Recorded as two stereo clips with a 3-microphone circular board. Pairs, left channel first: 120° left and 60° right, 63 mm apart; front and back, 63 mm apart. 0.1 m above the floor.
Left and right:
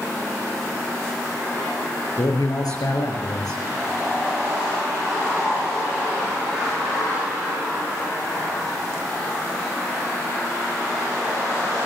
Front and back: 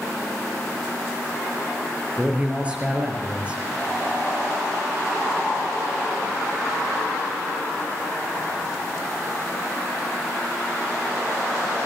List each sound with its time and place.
2.2 s a man speaking: 110° left, 6.5 m